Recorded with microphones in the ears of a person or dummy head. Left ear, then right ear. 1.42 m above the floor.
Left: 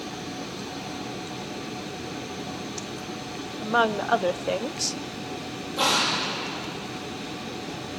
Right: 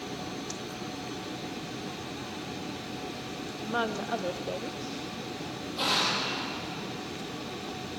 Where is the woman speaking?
30° left (ahead or behind), 1.0 m; by 5.0 s 75° left (ahead or behind), 0.8 m.